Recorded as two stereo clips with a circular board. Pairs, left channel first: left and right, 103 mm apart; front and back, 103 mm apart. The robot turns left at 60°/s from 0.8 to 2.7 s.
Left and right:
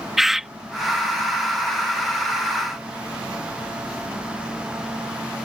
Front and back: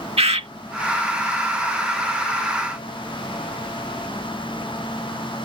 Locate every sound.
0.2 s a bird: 175° right